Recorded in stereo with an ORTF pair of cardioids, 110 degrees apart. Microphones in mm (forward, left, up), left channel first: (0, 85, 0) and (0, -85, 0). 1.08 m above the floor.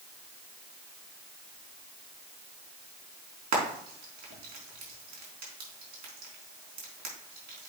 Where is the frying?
60° right, 4 m.